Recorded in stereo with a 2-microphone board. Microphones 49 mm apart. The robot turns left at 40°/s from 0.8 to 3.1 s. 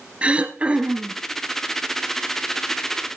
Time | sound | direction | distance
0.2 | throat clearing | 25° right (ahead or behind) | 1.6 m